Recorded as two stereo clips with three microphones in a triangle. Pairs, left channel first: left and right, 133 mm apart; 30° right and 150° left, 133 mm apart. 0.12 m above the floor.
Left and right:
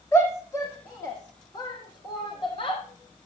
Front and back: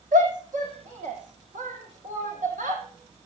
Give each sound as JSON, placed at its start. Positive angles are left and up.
{"t": 0.1, "sound": "a shout", "azimuth_deg": 160, "distance_m": 5.5}